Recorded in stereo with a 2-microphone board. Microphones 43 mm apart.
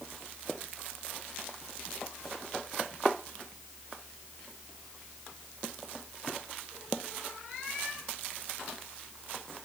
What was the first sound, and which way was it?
Only background noise.